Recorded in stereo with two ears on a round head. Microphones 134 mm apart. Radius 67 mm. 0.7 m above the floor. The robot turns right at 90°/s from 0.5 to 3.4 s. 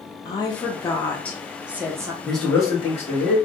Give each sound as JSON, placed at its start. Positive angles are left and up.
{"t": 0.2, "sound": "a woman speaking", "side_deg": 25, "distance_m": 0.6}
{"t": 2.2, "sound": "a man speaking", "azimuth_deg": -5, "distance_m": 1.0}